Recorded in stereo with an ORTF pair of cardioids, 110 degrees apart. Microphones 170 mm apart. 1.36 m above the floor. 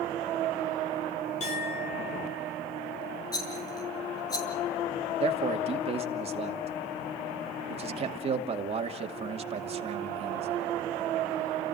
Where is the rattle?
20° left, 6.5 m.